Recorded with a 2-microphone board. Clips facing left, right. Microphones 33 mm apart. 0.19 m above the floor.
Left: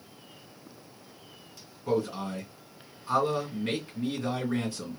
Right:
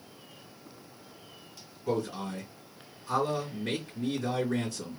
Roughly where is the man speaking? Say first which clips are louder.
Left 3 dB; centre.